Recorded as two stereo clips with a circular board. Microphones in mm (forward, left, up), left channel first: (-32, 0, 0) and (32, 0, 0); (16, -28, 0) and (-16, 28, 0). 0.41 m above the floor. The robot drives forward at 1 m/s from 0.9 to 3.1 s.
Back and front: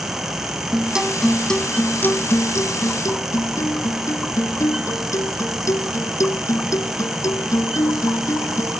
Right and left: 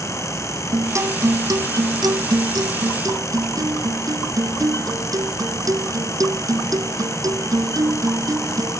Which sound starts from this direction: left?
A guitar, at 0.7 s.